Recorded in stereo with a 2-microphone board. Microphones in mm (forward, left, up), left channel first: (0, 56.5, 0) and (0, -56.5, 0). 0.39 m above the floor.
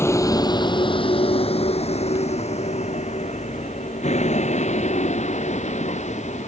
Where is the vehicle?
20° left (ahead or behind); by 6.5 s 90° left.